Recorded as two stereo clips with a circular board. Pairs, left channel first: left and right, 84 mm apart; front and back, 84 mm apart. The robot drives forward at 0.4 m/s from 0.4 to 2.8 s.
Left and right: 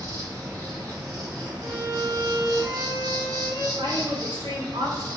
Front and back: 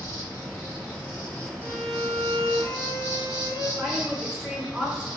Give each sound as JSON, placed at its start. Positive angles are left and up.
{"t": 0.0, "sound": "an insect", "azimuth_deg": -55, "distance_m": 1.7}
{"t": 1.6, "sound": "a violin", "azimuth_deg": -125, "distance_m": 1.1}
{"t": 3.8, "sound": "a woman speaking", "azimuth_deg": -100, "distance_m": 1.4}